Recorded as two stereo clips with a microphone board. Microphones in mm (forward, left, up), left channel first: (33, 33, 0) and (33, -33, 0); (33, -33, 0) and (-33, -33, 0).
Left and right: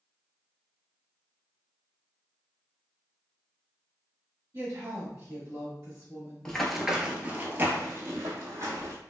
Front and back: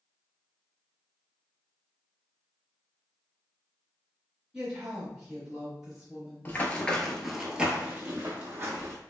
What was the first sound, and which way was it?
A woman speaking, 105° right.